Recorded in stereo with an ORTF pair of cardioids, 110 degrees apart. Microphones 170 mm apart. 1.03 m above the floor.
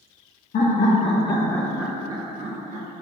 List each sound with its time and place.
0.5 s laughter: 55° left, 1.0 m; by 2.9 s 55° right, 0.9 m